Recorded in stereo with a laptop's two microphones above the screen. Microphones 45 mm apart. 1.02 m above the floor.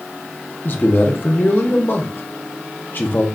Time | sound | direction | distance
0.7 | a man speaking | 50° left (ahead or behind) | 0.6 m